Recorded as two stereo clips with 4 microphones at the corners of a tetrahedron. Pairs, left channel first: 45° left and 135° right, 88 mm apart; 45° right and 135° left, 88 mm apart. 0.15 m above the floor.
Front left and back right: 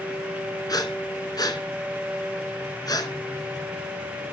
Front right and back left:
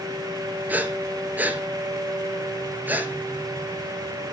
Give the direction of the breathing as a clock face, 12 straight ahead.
10 o'clock.